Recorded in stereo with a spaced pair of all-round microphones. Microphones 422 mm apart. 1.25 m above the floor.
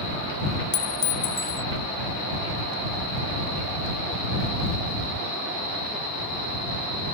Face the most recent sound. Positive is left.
turn(degrees=30)  # may be behind; listen again after turning